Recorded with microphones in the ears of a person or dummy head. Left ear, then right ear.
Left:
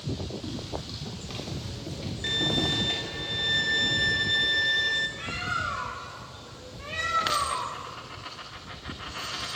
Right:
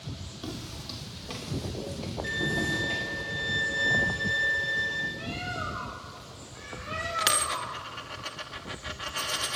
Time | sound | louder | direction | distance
0.4 | footsteps | left 3 dB | 25° right (ahead or behind) | 3.5 m
2.2 | a violin | left 3 dB | 75° left (ahead or behind) | 4 m
5.2 | a bird | left 4 dB | 25° left (ahead or behind) | 2.5 m
7.2 | a dropped coin | right 2 dB | 10° right (ahead or behind) | 1.2 m